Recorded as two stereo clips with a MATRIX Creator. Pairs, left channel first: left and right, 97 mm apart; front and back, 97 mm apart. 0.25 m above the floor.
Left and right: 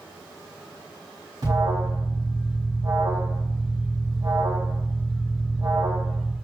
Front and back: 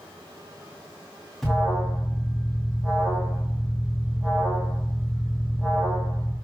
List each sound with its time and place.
1.4 s an alarm: 90° right, 2.5 m